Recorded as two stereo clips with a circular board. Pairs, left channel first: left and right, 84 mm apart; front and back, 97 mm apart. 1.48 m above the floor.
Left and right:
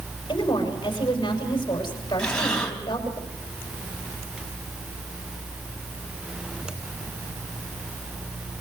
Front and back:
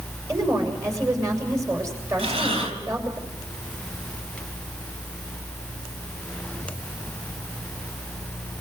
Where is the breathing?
170° left, 3.5 m.